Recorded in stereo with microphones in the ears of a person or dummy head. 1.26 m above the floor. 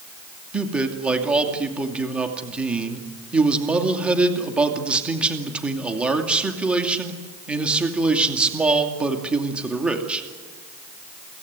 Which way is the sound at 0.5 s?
5° right (ahead or behind).